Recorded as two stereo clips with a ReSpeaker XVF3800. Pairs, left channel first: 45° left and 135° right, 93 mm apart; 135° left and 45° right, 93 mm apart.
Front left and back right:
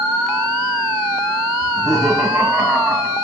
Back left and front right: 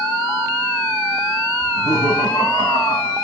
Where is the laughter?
140° left, 3.5 m; by 3.1 s 135° left, 4.5 m.